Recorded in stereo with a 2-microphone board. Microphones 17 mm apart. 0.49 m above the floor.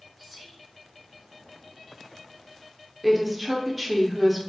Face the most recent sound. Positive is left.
turn(degrees=-5)  # may be behind; listen again after turning